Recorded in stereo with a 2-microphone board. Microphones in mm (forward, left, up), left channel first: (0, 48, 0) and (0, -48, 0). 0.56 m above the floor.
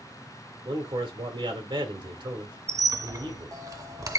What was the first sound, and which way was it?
A man speaking, 55° right (ahead or behind).